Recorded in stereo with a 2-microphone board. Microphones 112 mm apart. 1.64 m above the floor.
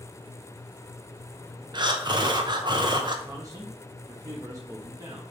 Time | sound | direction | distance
1.7 | breathing | 40° right (ahead or behind) | 0.8 m
3.3 | a man speaking | 30° right (ahead or behind) | 1.2 m